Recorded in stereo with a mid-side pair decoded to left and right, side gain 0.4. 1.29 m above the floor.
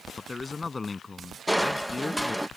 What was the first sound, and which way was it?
A man speaking, 30° left.